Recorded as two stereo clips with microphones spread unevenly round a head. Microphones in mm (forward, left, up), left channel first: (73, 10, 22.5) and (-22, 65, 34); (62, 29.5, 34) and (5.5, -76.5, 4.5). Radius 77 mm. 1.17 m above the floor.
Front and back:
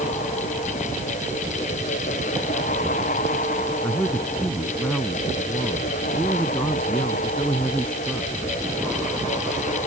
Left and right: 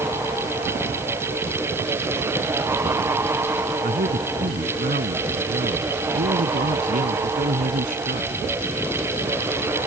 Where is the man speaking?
115° right.